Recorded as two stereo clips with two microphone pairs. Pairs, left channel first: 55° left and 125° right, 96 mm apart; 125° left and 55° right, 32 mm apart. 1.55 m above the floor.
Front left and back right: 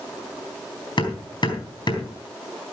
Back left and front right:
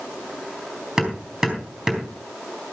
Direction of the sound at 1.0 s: 20° left.